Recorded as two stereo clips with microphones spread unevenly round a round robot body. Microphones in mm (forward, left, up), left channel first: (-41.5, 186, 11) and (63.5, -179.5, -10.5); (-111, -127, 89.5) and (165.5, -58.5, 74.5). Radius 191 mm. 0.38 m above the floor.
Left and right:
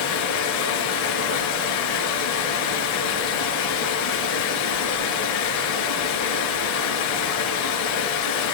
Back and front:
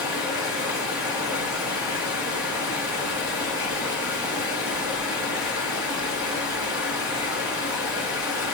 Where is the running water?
95° left, 3.5 m.